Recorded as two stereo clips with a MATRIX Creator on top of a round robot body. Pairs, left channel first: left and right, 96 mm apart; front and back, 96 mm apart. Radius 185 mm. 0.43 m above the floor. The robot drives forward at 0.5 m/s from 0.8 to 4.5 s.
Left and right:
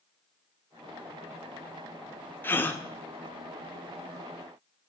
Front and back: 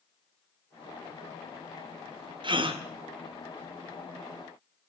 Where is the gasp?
155° left, 1.6 m; by 2.8 s 160° left, 1.8 m.